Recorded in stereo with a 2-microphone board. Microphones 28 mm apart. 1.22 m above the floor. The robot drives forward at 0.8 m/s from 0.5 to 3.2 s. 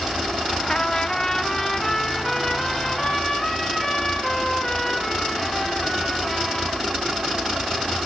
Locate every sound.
0.7 s a trumpet: 30° left (ahead or behind), 0.5 m; by 6.8 s 5° left (ahead or behind), 2 m